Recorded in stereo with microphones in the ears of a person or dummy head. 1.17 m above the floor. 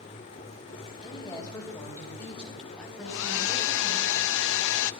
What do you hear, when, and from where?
1.0 s a woman speaking: 20° left (ahead or behind), 3 m; by 4.0 s 10° right (ahead or behind), 5 m
3.0 s a hair dryer: 70° left (ahead or behind), 0.6 m